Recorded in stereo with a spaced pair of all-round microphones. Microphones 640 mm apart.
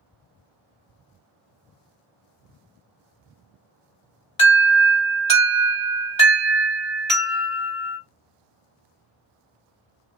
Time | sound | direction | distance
4.4 | an alarm | 55° left (ahead or behind) | 2.0 m